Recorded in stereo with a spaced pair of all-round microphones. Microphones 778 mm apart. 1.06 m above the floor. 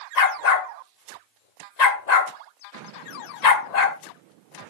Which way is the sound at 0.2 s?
55° left (ahead or behind).